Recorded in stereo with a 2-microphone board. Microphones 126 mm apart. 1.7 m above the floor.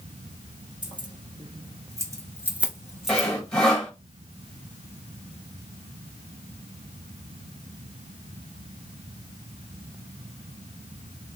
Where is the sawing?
5° left (ahead or behind), 1.0 m.